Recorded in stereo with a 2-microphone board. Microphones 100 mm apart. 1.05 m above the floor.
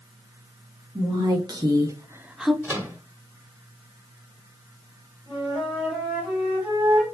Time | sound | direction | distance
0.9 | a woman speaking | 35° right (ahead or behind) | 1.4 m
2.6 | a microwave | 20° right (ahead or behind) | 0.9 m
5.3 | a flute | 20° right (ahead or behind) | 2.5 m